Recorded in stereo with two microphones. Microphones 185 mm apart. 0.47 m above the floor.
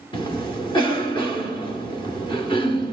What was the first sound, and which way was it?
A cough, 25° left (ahead or behind).